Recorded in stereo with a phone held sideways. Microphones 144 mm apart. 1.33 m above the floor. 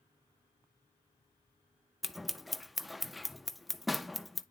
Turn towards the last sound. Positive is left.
turn(degrees=0)  # may be behind; listen again after turning